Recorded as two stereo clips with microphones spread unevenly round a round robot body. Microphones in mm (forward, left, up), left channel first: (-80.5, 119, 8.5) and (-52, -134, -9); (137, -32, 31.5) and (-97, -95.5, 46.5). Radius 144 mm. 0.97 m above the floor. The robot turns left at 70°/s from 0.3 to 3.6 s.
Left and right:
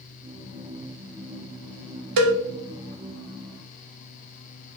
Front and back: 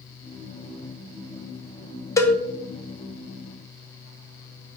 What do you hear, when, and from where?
2.2 s a cowbell: 65° right, 0.7 m; by 2.3 s 75° right, 0.7 m